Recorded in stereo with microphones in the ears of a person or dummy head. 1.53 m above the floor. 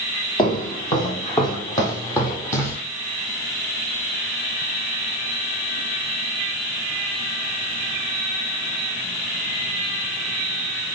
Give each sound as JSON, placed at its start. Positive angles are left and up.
{"t": 0.4, "sound": "footsteps", "side_deg": 30, "distance_m": 4.0}